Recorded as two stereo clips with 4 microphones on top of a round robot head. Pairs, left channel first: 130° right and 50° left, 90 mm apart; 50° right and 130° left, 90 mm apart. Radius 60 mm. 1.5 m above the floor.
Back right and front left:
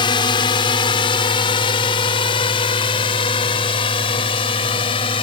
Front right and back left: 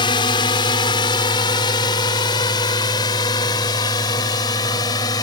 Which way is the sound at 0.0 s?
90° right.